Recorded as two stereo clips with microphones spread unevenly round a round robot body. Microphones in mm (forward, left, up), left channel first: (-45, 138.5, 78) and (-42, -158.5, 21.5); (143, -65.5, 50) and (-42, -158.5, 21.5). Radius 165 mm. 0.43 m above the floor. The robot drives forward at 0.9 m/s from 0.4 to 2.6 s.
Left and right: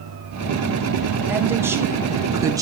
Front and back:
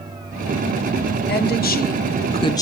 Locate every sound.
1.3 s a woman speaking: 10° right, 1.7 m; by 2.6 s 45° right, 0.9 m